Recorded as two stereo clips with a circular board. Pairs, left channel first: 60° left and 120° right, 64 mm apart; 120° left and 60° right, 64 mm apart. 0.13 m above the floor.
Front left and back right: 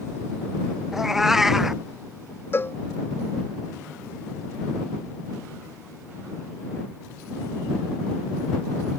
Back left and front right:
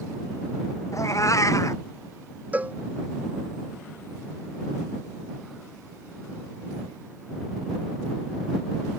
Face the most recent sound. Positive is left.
turn(degrees=5)